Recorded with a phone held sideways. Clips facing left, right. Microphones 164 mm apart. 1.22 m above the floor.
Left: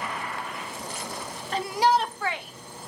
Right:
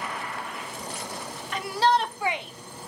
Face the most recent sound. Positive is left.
turn(degrees=-35)  # may be behind; listen again after turning